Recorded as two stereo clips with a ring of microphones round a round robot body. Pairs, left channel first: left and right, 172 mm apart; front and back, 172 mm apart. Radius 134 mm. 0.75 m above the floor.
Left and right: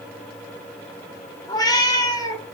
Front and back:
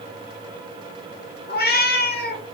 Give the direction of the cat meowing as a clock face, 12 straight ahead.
11 o'clock.